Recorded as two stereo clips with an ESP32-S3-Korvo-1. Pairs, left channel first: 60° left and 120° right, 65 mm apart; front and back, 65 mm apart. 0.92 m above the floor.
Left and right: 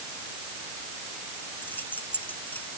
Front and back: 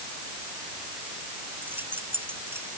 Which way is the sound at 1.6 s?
120° left.